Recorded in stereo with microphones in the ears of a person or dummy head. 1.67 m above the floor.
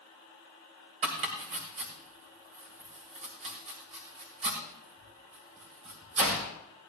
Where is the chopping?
35° right (ahead or behind), 2.0 m.